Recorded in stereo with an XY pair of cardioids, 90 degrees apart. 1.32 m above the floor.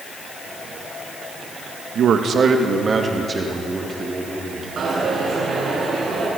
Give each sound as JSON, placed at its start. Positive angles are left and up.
{"t": 1.9, "sound": "a man speaking", "azimuth_deg": -65, "distance_m": 1.9}
{"t": 4.8, "sound": "a dropped coin", "azimuth_deg": -50, "distance_m": 7.5}